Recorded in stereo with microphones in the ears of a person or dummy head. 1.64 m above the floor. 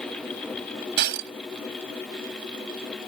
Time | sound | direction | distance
1.0 | breaking glass | 50° right (ahead or behind) | ?